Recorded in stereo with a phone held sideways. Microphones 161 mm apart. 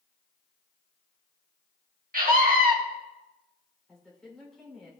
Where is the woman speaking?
5° left (ahead or behind), 3.5 m.